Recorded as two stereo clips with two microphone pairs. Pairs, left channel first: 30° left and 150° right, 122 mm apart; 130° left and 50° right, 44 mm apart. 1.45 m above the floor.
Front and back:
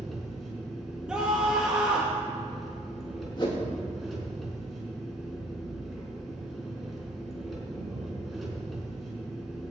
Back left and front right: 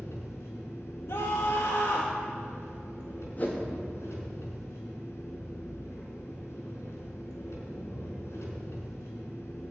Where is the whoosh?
80° left, 3 m.